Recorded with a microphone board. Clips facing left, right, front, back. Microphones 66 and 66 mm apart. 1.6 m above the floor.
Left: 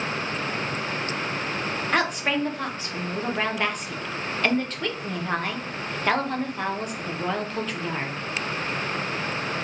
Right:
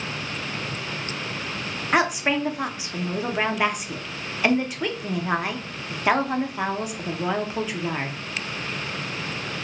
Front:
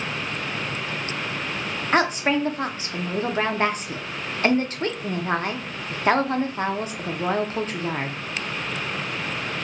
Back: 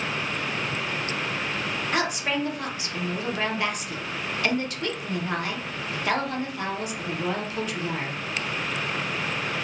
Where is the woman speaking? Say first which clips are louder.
Right 4 dB, front 7 dB; 20° right, 0.6 m.